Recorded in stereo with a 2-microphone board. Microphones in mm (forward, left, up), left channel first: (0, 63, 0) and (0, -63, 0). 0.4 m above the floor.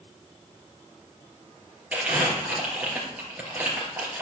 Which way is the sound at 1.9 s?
10° right (ahead or behind).